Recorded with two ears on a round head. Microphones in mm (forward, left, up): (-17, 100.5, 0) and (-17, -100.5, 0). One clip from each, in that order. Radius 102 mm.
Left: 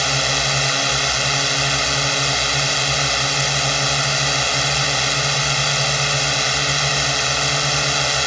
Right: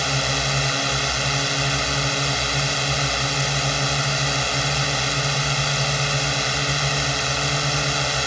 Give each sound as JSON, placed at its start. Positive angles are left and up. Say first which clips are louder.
{"t": 0.0, "sound": "a drone", "louder": "left 4 dB", "side_deg": 30}